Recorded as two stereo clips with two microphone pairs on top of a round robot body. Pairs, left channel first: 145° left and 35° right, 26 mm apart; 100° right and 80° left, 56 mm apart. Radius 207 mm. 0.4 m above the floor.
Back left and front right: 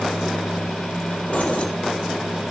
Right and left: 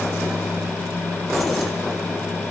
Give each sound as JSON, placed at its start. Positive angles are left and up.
{"t": 1.3, "sound": "keys jangling", "azimuth_deg": 170, "distance_m": 1.5}